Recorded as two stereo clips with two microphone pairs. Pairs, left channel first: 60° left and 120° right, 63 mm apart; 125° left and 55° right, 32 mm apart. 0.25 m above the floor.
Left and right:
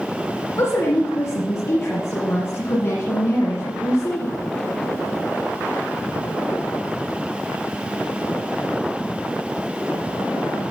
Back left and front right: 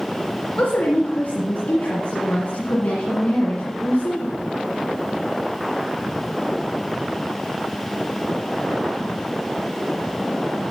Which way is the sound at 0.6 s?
90° left.